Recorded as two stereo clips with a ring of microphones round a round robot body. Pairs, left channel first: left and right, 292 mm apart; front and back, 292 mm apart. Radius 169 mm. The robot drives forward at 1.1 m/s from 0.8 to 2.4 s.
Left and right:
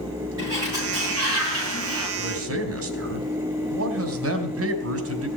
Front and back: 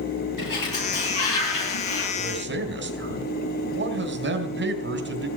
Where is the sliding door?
10° right, 10 m; by 2.1 s 15° right, 8.5 m.